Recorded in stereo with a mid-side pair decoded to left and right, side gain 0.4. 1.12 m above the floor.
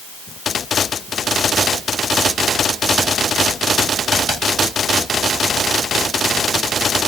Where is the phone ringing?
I don't hear a phone ringing.